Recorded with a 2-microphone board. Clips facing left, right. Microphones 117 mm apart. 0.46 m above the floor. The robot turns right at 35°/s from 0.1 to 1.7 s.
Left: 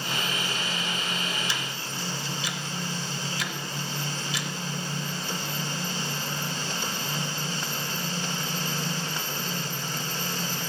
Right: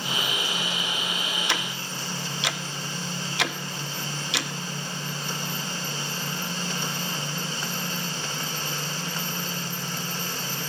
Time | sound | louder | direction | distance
1.5 | ticking | right 3 dB | 65° right (ahead or behind) | 0.6 m